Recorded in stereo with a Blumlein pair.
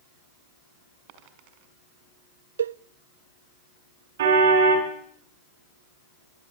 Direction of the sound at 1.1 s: 45° right.